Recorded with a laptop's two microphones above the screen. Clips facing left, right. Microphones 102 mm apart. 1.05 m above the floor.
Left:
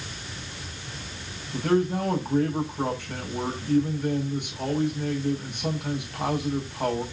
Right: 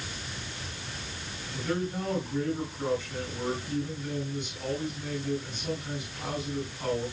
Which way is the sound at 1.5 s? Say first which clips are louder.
Left 8 dB; 60° left (ahead or behind).